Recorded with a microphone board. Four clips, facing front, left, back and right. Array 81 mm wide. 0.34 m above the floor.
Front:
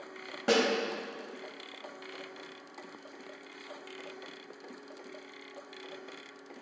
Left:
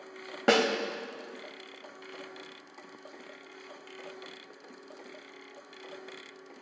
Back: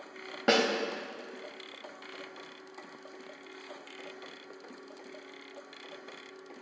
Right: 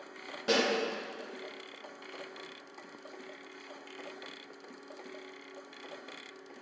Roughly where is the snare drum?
Behind left.